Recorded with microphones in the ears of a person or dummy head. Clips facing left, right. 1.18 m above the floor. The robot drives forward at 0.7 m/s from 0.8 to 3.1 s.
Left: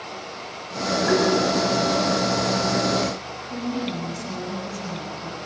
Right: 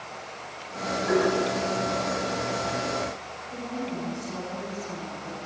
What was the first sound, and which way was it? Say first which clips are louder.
Tapping: left 2 dB; 85° left.